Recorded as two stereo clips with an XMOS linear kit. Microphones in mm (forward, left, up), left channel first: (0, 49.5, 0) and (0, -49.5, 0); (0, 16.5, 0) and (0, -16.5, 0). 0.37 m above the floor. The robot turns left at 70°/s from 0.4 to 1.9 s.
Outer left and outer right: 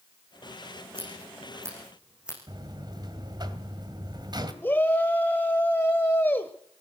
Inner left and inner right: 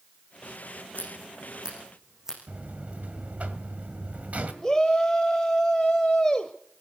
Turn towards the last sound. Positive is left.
turn(degrees=20)  # may be behind; listen again after turning